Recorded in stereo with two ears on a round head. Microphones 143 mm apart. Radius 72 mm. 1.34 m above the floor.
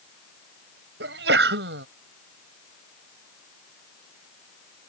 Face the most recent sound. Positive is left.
turn(degrees=-80)